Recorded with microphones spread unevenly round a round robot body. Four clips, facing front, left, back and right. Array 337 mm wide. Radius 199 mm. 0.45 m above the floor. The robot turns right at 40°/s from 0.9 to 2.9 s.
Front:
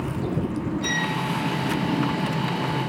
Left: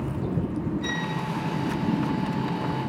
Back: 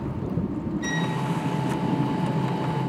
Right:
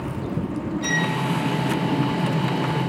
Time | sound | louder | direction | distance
0.8 | a violin | right 5 dB, front 1 dB | 155° right | 1.1 m